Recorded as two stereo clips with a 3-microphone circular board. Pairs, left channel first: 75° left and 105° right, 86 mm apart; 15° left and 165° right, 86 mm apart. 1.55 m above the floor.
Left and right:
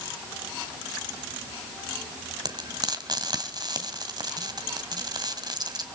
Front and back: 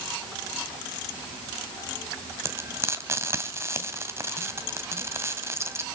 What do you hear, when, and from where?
2.5 s frying: 115° right, 2 m